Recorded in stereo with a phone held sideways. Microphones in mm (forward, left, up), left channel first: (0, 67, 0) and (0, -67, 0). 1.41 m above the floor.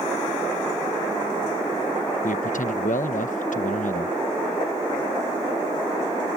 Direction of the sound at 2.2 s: 75° left (ahead or behind).